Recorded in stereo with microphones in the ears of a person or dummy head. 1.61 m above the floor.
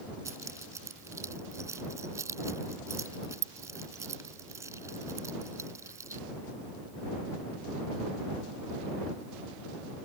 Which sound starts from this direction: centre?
Keys jangling, at 0.2 s.